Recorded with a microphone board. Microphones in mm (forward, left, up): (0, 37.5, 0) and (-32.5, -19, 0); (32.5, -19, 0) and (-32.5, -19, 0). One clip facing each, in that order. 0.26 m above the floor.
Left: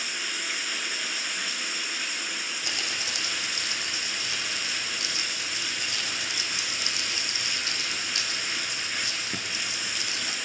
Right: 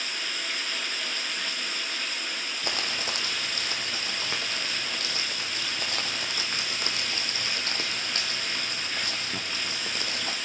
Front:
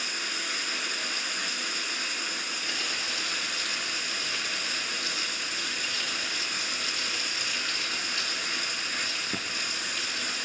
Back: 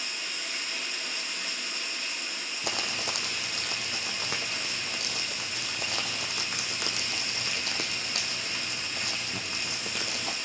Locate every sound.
0.0 s running water: 20° right, 1.9 m
2.6 s crumpling: 165° right, 2.5 m